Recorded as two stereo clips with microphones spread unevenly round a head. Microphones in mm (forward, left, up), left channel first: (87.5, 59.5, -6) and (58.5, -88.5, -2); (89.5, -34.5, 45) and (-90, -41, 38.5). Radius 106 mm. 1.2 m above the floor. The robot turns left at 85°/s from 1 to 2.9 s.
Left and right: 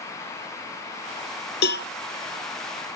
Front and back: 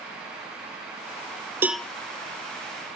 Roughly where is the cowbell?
Left.